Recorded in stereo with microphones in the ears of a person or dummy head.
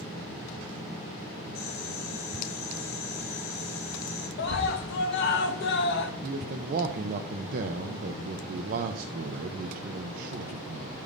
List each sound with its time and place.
1.6 s boiling: 50° left (ahead or behind), 4.5 m
4.4 s a scream: 65° left (ahead or behind), 1.4 m
6.2 s a man speaking: 50° right (ahead or behind), 0.7 m